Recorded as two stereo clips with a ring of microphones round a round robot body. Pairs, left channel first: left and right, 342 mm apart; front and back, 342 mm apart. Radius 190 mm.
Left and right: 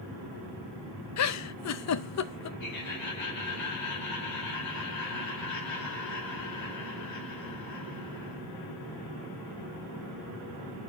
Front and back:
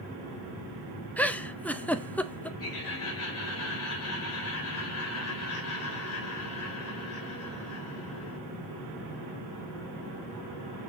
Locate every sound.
1.2 s a giggle: 85° left, 0.7 m
2.6 s laughter: 45° left, 5 m